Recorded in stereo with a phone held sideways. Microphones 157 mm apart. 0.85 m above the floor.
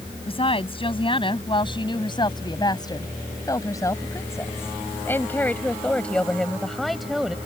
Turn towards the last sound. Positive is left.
turn(degrees=-5)  # may be behind; listen again after turning